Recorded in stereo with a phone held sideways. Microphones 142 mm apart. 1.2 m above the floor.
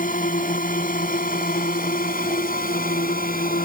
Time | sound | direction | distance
0.0 | a drone | 75° left (ahead or behind) | ?